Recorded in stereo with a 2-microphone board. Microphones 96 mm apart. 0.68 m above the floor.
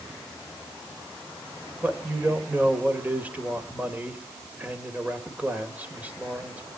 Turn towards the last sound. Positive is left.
turn(degrees=-15)  # may be behind; listen again after turning